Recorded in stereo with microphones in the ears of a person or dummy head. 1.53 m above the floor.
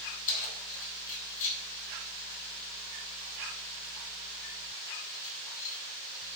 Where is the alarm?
No alarm in this recording.